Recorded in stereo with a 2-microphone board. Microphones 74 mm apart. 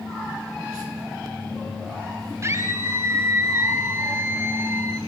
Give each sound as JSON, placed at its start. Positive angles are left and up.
{"t": 2.4, "sound": "a scream", "side_deg": -40, "distance_m": 1.6}